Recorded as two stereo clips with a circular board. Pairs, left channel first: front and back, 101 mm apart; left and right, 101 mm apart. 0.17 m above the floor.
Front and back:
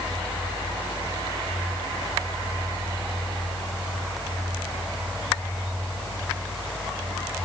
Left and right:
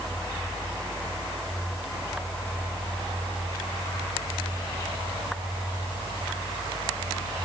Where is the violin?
No violin in this recording.